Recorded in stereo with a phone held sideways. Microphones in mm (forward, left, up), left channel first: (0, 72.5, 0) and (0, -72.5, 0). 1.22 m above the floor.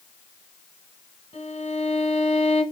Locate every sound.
1.3 s a violin: 50° left (ahead or behind), 2.5 m